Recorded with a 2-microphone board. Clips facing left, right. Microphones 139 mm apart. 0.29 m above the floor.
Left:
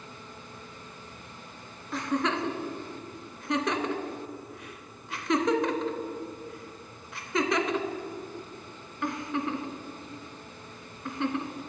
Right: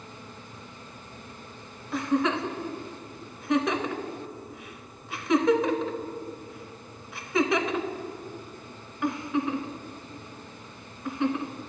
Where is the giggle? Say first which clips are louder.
Right 3 dB; 5° right (ahead or behind), 0.6 m.